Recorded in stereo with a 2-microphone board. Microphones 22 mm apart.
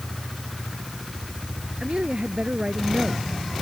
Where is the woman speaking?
55° right (ahead or behind).